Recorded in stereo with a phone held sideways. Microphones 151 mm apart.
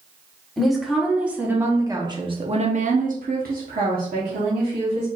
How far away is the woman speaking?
About 1.6 m.